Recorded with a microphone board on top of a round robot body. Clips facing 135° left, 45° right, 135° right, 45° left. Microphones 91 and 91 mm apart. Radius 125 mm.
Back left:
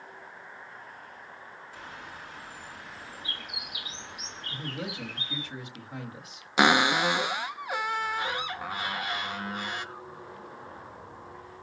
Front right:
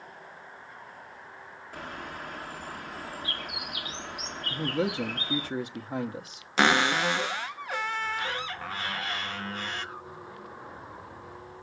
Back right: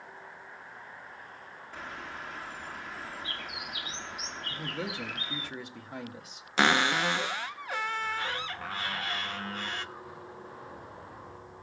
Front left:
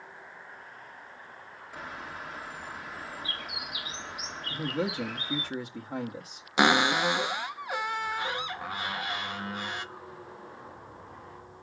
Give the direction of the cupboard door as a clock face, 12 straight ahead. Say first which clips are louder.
Back left 1 dB, front left 2 dB; 9 o'clock.